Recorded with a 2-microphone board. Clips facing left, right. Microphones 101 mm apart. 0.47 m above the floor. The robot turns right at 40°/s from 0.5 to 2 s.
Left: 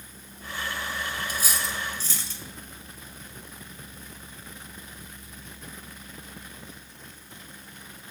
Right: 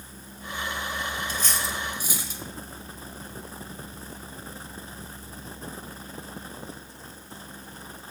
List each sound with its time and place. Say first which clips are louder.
1.3 s cutlery clinking: right 1 dB; 15° left (ahead or behind), 1.1 m; by 2.4 s 15° right (ahead or behind), 1.1 m